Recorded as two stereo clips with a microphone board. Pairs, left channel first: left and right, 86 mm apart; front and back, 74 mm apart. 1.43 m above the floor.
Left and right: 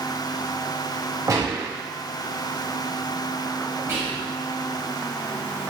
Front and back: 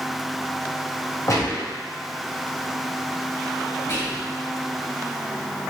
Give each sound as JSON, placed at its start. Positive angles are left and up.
{"t": 1.3, "sound": "a gunshot", "azimuth_deg": -45, "distance_m": 0.7}
{"t": 3.9, "sound": "whispering", "azimuth_deg": -40, "distance_m": 1.9}